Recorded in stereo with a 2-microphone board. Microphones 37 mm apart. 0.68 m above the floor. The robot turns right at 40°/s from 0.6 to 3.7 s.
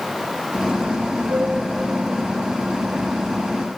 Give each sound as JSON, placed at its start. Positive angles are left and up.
{"t": 1.3, "sound": "a flute", "side_deg": -70, "distance_m": 0.7}